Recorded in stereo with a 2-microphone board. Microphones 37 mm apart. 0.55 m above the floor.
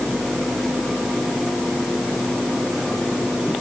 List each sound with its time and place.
Only background noise.